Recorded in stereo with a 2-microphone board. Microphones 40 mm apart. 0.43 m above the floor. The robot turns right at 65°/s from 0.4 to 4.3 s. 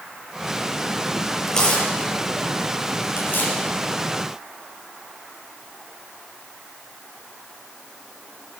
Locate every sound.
1.5 s tearing paper: 5° left (ahead or behind), 4.5 m; by 3.5 s 40° left (ahead or behind), 4.5 m